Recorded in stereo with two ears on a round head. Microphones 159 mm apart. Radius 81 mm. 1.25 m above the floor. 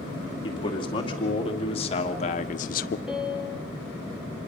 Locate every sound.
0.4 s a man speaking: 25° left (ahead or behind), 2.5 m; by 3.0 s 55° left (ahead or behind), 0.5 m
3.1 s a piano: centre (ahead or behind), 2 m